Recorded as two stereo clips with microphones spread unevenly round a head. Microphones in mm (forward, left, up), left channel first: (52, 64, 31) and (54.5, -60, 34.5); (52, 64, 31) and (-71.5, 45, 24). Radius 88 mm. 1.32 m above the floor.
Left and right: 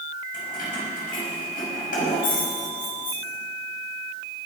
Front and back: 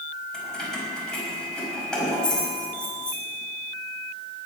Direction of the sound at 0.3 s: 90° left.